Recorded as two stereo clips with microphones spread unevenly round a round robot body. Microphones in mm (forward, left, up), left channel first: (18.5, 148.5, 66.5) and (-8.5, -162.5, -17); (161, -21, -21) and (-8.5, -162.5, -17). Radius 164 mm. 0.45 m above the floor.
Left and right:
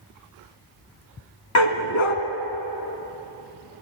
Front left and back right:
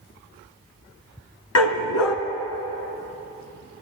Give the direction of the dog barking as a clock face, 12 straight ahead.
11 o'clock.